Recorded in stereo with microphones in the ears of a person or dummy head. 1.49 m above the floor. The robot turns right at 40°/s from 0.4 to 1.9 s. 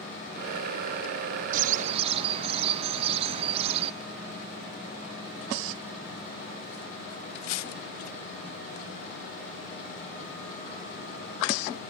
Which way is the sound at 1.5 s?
50° right (ahead or behind).